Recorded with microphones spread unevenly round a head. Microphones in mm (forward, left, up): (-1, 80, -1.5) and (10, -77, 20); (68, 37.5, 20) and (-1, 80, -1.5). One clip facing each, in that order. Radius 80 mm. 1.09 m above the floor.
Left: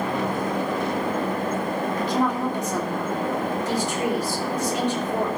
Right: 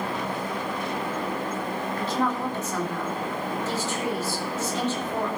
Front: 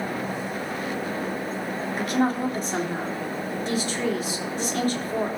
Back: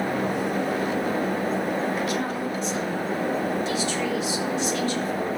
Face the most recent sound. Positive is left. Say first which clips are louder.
# left 2 dB, front 3 dB
turn(degrees=20)